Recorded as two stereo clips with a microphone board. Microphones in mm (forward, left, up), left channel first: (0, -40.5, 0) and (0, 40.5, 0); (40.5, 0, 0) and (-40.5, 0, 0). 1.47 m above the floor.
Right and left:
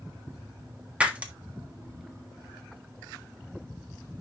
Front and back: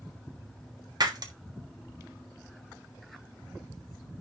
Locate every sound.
1.0 s breaking glass: 160° left, 1.4 m